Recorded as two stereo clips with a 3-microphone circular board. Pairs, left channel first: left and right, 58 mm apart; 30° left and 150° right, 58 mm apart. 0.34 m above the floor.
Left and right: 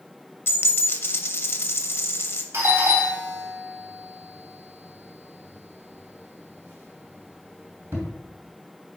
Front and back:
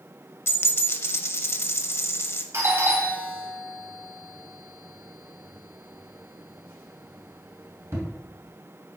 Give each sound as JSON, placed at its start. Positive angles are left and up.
{"t": 0.5, "sound": "a dropped coin", "azimuth_deg": 55, "distance_m": 0.7}
{"t": 2.5, "sound": "a doorbell", "azimuth_deg": -125, "distance_m": 2.5}